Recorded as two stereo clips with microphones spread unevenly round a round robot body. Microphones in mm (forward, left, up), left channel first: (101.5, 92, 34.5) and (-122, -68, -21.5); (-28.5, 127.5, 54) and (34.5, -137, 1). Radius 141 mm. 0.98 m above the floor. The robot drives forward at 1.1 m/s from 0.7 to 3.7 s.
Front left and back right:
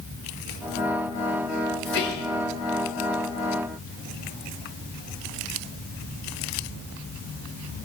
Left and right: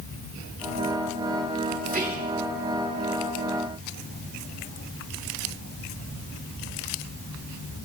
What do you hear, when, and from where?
1.9 s whispering: 20° right, 3 m; by 2.3 s 25° right, 2.5 m